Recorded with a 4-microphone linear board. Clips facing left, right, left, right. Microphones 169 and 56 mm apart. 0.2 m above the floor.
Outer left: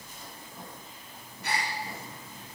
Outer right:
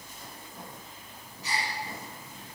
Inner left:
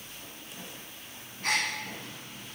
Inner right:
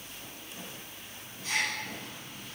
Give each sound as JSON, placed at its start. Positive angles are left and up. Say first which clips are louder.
{"t": 1.4, "sound": "a gasp", "louder": "outer left 2 dB, inner left 2 dB", "side_deg": 60, "distance_m": 10.0}